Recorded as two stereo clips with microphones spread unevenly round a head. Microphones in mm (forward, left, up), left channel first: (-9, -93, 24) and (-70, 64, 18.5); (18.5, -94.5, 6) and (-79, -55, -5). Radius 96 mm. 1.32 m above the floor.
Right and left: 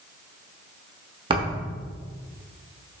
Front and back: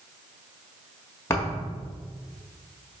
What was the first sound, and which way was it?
A thud, 45° left.